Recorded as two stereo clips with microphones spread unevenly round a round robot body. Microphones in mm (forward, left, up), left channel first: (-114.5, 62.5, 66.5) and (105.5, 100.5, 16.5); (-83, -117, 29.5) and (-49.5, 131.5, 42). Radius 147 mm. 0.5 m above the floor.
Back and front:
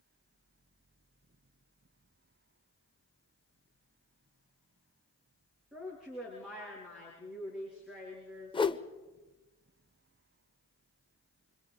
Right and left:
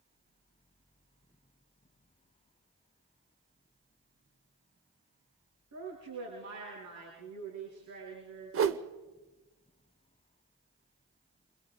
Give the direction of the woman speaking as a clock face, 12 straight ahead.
9 o'clock.